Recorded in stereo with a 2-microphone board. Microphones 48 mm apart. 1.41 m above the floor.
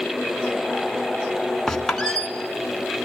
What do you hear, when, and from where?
1.7 s a squeak: 10° left (ahead or behind), 1.7 m